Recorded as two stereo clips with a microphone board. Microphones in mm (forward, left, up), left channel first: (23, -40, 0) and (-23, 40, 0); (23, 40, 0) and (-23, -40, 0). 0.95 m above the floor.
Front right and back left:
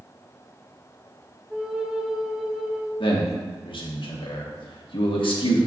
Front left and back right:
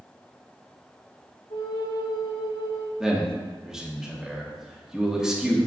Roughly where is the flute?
Ahead left.